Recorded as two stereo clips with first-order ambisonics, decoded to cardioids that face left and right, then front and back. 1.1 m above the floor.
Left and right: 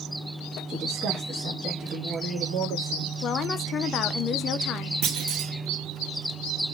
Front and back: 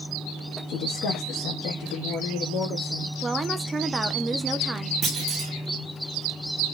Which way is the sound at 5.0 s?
120° right.